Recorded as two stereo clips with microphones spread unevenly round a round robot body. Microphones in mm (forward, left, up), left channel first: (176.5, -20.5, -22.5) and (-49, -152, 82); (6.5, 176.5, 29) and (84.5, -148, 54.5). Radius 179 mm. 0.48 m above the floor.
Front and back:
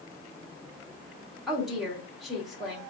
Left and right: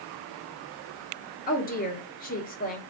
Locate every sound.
1.5 s a woman speaking: 80° left, 1.1 m